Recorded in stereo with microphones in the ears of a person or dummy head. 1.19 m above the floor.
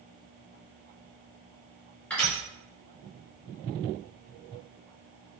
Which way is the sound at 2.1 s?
5° left (ahead or behind).